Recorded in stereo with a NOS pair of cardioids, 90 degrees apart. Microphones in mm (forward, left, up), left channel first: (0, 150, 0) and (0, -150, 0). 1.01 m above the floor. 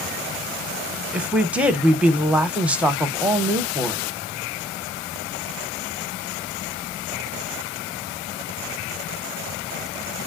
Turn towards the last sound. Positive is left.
turn(degrees=-5)